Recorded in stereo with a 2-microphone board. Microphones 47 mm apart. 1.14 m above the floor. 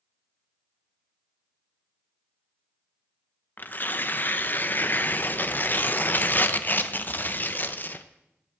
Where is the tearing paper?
40° left (ahead or behind), 0.7 m.